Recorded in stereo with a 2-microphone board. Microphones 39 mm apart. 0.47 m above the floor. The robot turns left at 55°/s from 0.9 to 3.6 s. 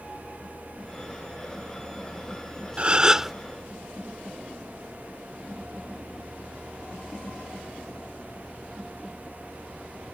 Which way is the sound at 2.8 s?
140° right.